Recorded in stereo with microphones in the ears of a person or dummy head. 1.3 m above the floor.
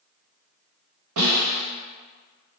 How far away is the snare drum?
About 1.3 m.